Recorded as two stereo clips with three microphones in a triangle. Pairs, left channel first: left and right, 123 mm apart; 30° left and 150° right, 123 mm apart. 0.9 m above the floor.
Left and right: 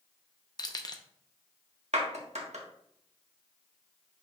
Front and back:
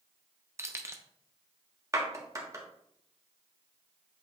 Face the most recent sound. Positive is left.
turn(degrees=-85)